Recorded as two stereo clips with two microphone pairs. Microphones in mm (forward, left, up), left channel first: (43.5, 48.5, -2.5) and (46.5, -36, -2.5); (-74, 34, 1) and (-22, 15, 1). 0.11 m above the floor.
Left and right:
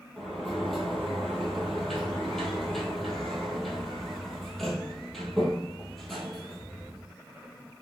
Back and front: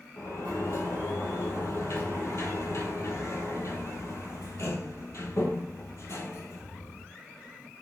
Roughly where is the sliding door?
Behind.